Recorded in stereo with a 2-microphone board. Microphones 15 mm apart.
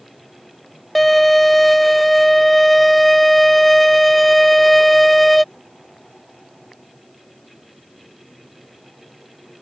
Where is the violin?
15° left (ahead or behind).